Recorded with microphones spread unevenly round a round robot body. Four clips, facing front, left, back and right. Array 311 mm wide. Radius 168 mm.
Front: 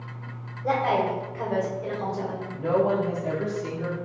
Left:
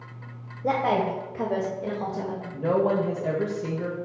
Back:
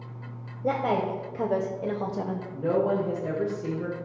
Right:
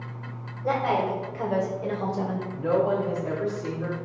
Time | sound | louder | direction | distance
0.6 | a woman speaking | left 1 dB, front 2 dB | 145° left | 1.7 m
2.5 | a woman speaking | left 1 dB, front 2 dB | 120° left | 1.4 m